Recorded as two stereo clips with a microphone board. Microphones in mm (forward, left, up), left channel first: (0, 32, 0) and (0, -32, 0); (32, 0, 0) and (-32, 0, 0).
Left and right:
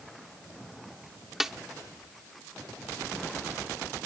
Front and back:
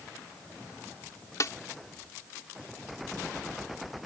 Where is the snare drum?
5° right.